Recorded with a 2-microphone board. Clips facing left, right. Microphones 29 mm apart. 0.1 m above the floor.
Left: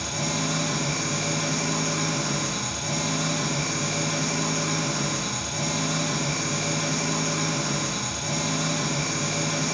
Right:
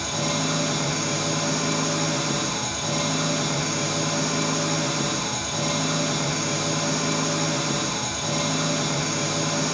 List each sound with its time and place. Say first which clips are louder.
0.0 s an engine running: right 2 dB; 70° right (ahead or behind), 1.7 m